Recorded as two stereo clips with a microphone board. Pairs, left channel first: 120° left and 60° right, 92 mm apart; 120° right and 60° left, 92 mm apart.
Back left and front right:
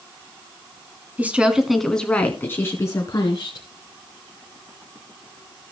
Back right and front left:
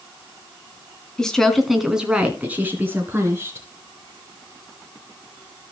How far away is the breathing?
No breathing in this recording.